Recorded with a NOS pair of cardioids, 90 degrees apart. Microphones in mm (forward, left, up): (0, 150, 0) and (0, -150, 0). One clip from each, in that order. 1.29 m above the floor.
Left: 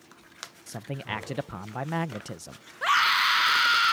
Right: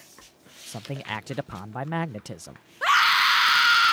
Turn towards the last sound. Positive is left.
turn(degrees=-15)